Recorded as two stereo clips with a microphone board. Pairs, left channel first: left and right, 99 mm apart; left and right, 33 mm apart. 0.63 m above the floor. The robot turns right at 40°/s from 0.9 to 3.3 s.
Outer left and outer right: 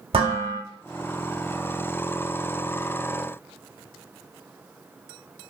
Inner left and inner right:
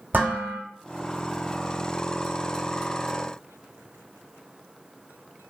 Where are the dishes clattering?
75° right (ahead or behind), 1.2 m.